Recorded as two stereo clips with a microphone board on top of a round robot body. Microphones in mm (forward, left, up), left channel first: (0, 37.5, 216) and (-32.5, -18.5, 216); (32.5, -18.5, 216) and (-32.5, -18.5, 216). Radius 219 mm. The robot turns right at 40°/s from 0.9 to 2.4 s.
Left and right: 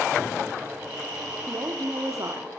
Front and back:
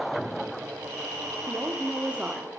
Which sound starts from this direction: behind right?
A woman speaking, at 1.5 s.